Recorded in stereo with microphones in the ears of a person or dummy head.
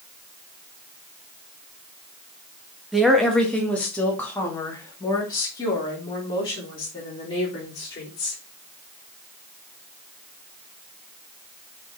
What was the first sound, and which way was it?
A woman speaking, 5° right (ahead or behind).